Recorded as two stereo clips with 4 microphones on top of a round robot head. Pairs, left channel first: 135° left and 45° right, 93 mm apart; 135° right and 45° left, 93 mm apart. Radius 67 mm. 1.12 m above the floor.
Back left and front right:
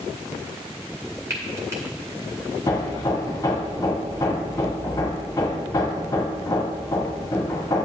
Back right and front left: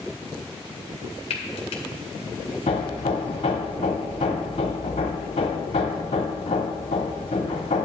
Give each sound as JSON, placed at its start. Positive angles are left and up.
{"t": 1.3, "sound": "frying", "azimuth_deg": -110, "distance_m": 1.8}
{"t": 2.7, "sound": "hammering", "azimuth_deg": -165, "distance_m": 1.1}